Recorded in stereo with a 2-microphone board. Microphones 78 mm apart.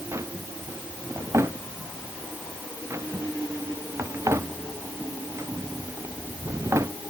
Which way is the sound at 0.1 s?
35° right (ahead or behind).